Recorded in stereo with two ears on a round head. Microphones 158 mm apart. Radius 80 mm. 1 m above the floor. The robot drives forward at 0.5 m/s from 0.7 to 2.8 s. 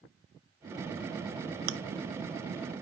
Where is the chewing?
60° right (ahead or behind), 0.6 m.